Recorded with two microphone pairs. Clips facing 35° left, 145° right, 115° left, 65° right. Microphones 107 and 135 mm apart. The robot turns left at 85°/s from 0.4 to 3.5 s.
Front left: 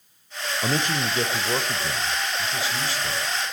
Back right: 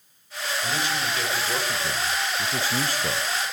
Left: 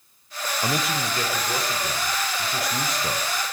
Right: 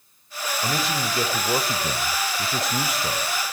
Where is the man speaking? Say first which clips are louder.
Front left 4 dB, even; 50° left, 1.2 m; by 3.2 s 170° right, 1.2 m.